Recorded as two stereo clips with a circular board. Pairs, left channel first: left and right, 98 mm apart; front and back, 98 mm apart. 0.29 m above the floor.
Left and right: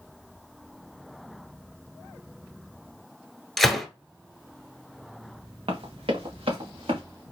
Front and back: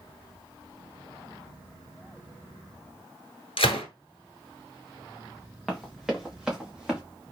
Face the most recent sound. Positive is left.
turn(degrees=-100)